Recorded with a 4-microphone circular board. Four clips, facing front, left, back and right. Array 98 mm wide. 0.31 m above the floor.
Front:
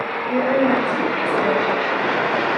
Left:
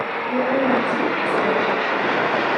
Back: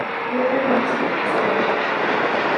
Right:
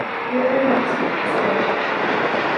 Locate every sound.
0.3 s a woman speaking: 10° right, 1.1 m